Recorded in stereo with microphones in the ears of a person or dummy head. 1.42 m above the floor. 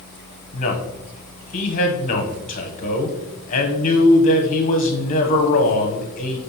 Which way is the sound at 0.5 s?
45° left (ahead or behind).